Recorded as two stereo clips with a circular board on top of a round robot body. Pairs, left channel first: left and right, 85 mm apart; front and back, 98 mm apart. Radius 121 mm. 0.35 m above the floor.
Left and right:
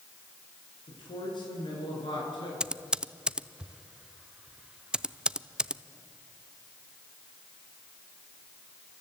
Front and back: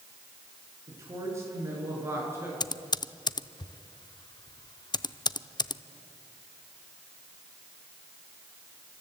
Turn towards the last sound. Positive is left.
turn(degrees=-15)